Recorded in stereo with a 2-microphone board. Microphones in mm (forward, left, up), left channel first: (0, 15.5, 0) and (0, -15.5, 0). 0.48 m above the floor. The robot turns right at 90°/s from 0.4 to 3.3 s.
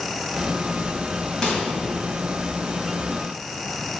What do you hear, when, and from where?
1.4 s a microwave: 20° left (ahead or behind), 2.5 m; by 1.7 s 40° left (ahead or behind), 2.5 m